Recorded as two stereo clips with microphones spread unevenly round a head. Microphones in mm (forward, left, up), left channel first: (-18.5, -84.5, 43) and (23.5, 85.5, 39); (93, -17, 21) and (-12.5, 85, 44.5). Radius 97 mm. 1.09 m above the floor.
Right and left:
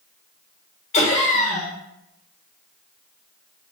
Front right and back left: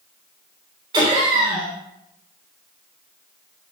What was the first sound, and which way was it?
Laughter, 155° right.